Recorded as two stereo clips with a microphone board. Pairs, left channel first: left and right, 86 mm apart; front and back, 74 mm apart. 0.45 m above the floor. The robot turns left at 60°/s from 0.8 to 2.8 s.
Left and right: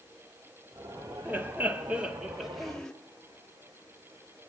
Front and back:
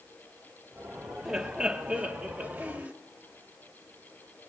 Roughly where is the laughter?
Right.